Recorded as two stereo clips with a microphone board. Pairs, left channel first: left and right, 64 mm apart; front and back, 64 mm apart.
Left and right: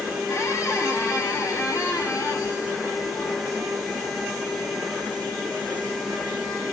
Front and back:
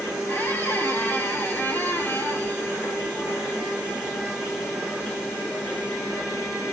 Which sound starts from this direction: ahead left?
A squeak, at 0.3 s.